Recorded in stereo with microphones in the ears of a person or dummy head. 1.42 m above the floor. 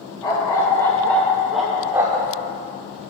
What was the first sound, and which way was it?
A dog barking, 20° left (ahead or behind).